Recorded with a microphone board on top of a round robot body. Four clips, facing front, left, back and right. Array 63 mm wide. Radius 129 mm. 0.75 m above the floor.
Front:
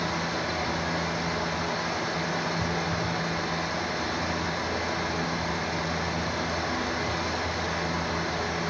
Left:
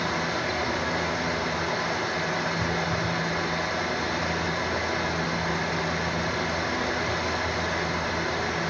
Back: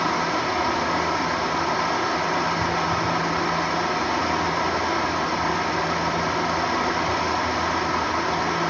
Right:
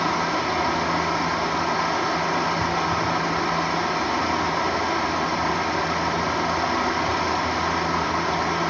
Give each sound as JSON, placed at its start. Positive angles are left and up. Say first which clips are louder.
{"t": 0.0, "sound": "running water", "louder": "right 5 dB, back 7 dB", "azimuth_deg": -130, "distance_m": 4.0}